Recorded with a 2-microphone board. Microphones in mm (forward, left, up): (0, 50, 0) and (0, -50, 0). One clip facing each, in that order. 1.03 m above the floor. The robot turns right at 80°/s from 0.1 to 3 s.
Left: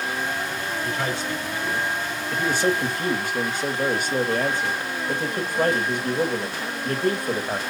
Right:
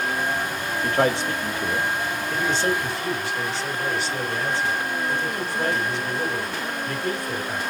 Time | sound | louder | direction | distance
0.8 | a man speaking | right 9 dB | 125° right | 1.3 m